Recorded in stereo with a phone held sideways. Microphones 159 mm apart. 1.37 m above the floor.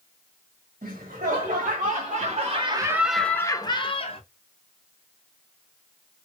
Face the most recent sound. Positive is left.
turn(degrees=40)  # may be behind; listen again after turning